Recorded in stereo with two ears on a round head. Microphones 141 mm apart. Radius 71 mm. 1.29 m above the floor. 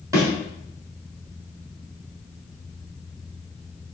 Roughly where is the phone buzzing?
I don't hear a phone buzzing.